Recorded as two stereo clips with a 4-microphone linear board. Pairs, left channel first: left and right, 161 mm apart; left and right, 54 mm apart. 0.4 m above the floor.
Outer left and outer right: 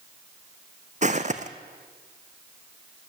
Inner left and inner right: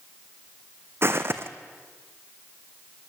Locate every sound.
1.0 s footsteps: 45° right (ahead or behind), 1.2 m